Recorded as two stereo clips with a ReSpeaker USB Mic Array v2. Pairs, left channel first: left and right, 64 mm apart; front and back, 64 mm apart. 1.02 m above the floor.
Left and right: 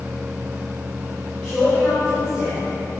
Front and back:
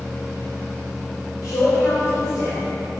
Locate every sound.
1.4 s a man speaking: 20° left, 4.5 m